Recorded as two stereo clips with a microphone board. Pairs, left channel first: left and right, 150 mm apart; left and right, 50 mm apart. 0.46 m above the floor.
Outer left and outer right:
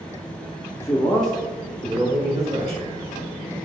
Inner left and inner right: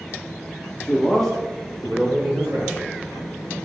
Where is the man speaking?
25° left (ahead or behind), 1.1 m; by 2.9 s 25° right (ahead or behind), 2.5 m.